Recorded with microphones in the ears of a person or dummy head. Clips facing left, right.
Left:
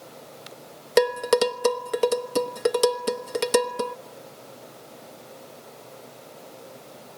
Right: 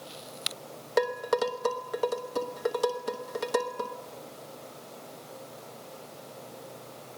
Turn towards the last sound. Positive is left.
turn(degrees=50)  # may be behind; listen again after turning